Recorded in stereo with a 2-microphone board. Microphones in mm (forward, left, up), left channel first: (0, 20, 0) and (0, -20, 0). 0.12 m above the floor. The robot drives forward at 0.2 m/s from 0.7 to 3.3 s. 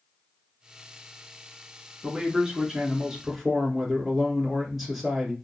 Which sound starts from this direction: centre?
A man speaking, at 2.0 s.